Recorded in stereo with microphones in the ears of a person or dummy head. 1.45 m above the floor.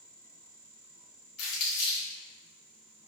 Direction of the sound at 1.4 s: 75° left (ahead or behind).